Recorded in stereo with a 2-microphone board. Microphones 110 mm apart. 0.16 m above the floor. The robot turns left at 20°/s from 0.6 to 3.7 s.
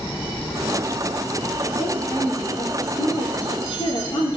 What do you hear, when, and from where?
1.8 s a woman speaking: 165° left, 3 m; by 4.4 s 125° left, 3 m